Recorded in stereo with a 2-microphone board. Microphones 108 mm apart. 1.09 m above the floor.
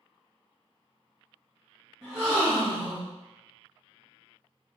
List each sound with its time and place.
2.0 s a gasp: 5° right (ahead or behind), 1.6 m